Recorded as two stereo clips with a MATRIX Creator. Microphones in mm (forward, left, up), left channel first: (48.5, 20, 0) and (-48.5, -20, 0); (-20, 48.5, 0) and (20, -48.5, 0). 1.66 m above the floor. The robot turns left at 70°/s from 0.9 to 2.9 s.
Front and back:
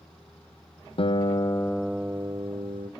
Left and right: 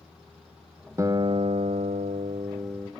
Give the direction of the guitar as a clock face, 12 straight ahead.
12 o'clock.